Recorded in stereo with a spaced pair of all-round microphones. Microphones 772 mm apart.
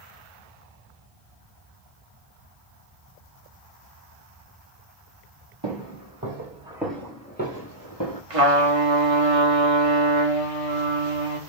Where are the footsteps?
30° right (ahead or behind), 1.8 m; by 8.2 s 25° left (ahead or behind), 2 m.